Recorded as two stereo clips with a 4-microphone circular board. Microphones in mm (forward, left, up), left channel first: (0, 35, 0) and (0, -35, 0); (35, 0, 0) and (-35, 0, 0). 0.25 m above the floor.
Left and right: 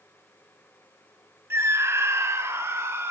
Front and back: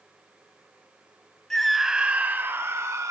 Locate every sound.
1.5 s a scream: 80° right, 1.3 m; by 3.1 s 140° right, 2 m